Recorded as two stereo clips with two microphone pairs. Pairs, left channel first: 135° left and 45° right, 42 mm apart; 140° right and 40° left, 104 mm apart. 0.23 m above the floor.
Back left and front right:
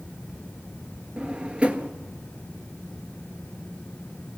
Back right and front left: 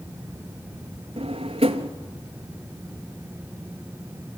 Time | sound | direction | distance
1.2 | a drawer | 20° left | 1.2 m